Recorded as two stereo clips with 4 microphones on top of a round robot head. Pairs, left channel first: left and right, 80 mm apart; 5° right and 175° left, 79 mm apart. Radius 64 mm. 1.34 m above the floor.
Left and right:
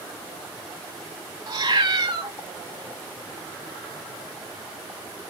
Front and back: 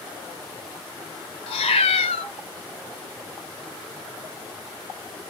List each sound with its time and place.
1.5 s a cat meowing: 30° right, 1.0 m